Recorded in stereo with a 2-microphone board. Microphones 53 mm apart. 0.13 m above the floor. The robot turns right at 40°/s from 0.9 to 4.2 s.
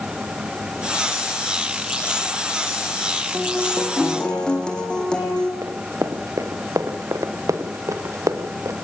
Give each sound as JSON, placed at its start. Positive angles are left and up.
{"t": 3.3, "sound": "a guitar", "azimuth_deg": -15, "distance_m": 4.5}
{"t": 5.6, "sound": "running footsteps", "side_deg": -70, "distance_m": 3.5}